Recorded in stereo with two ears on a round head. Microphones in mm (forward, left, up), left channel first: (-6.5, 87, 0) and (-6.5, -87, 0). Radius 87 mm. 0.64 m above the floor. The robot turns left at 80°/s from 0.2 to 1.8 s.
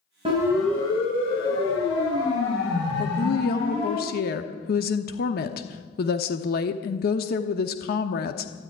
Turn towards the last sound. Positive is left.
turn(degrees=50)  # may be behind; listen again after turning